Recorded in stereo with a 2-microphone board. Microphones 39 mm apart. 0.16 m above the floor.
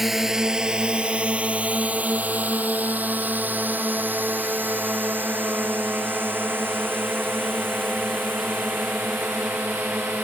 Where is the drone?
5° right (ahead or behind); by 10.2 s 70° right (ahead or behind).